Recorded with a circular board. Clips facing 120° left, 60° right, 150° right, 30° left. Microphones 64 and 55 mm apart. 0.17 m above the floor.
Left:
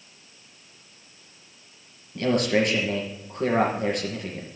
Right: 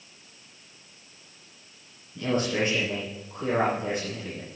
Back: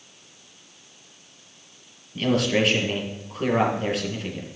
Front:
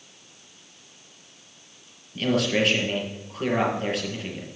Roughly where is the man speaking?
Behind left.